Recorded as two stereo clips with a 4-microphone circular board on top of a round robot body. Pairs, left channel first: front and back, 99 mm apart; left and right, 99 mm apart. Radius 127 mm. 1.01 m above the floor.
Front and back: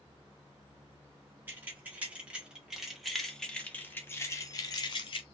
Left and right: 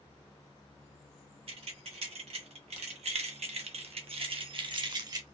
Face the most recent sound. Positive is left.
turn(degrees=-40)